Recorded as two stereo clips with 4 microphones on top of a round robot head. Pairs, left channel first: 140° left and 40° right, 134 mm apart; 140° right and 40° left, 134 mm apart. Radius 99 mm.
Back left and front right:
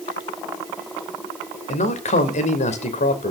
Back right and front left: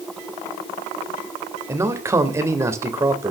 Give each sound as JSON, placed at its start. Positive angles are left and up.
{"t": 1.7, "sound": "a man speaking", "azimuth_deg": 110, "distance_m": 2.5}